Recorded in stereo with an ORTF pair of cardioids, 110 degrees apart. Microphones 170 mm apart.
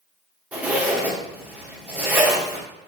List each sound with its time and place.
0.5 s a zipper: 10° right, 1.9 m